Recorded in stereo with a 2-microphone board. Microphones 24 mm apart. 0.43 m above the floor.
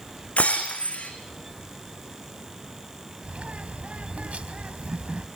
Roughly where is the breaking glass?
Left.